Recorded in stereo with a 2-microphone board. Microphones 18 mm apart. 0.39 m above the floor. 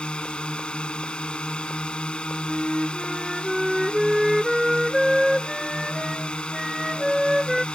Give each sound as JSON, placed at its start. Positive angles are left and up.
{"t": 0.0, "sound": "a drone", "side_deg": 70}
{"t": 2.5, "sound": "a flute", "side_deg": -10}